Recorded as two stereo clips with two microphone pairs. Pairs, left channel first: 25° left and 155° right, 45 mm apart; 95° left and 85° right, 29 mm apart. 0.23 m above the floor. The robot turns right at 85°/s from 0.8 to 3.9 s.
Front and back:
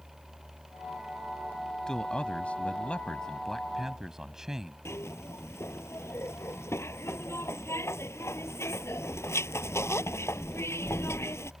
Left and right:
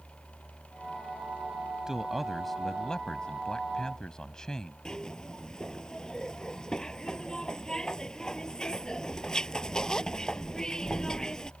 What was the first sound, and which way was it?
A man speaking, 35° right.